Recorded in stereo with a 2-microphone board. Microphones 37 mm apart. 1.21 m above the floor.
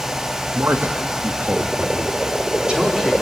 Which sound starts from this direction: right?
A man speaking, at 0.5 s.